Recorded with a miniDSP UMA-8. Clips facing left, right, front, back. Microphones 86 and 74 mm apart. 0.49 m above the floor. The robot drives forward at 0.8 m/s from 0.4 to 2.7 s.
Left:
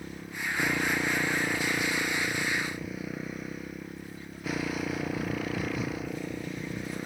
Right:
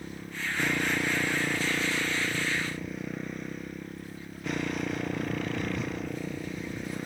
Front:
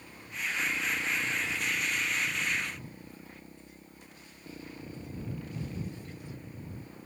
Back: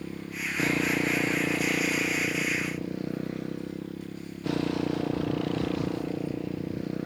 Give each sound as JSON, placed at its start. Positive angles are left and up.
{"t": 0.0, "sound": "a motorcycle", "azimuth_deg": 175}